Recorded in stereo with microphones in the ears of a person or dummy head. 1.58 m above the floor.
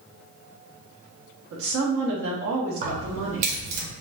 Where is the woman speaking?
75° right (ahead or behind), 0.8 m.